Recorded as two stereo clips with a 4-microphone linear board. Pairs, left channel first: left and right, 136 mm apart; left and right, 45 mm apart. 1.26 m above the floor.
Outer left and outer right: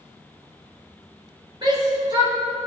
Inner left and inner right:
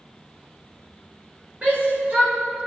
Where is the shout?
35° right (ahead or behind), 5.5 m.